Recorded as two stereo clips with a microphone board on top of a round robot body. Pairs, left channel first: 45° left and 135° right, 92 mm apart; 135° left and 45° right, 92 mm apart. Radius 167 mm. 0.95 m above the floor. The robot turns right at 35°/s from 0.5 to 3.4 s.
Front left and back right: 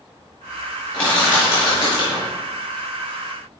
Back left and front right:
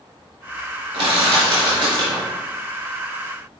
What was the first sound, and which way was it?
Crushing, 30° right.